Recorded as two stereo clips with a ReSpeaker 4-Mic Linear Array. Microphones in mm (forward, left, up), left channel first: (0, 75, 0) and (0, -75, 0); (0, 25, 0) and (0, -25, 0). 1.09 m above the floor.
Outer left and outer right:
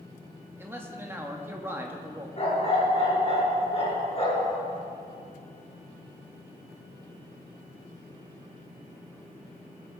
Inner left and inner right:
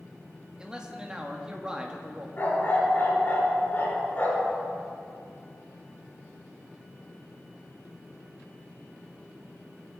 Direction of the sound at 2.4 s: 40° left (ahead or behind).